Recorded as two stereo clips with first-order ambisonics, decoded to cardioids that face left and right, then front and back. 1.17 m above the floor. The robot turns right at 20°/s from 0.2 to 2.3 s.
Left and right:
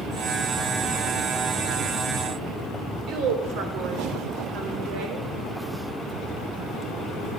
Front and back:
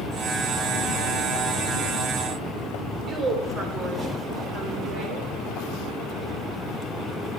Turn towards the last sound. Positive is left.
turn(degrees=-120)